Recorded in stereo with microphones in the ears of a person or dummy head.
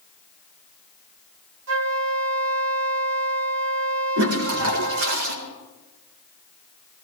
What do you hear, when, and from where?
1.7 s a flute: 70° right (ahead or behind), 1.3 m
4.2 s a toilet flushing: 80° right, 4 m